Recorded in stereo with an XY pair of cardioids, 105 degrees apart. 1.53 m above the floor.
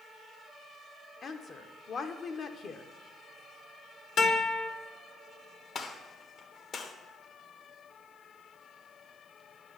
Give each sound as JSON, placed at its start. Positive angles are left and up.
{"t": 1.2, "sound": "a woman speaking", "azimuth_deg": 45, "distance_m": 1.0}
{"t": 4.2, "sound": "a guitar", "azimuth_deg": 70, "distance_m": 2.0}
{"t": 5.8, "sound": "a gunshot", "azimuth_deg": 45, "distance_m": 1.1}